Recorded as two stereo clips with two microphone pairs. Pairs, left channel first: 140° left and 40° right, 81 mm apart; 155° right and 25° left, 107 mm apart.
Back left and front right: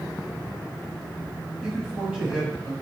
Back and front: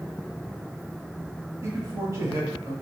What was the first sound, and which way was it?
A man speaking, 35° left.